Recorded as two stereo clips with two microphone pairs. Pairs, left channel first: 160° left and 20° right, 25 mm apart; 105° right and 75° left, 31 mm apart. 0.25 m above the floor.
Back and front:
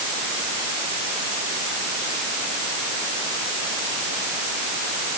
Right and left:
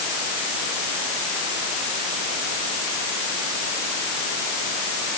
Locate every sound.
Only background noise.